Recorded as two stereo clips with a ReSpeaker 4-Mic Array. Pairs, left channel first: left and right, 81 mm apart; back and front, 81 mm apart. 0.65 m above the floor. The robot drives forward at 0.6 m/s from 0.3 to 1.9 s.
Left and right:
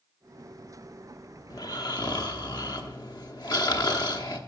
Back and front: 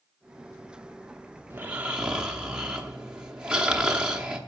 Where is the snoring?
60° left, 1.0 m; by 4.4 s 75° left, 0.9 m.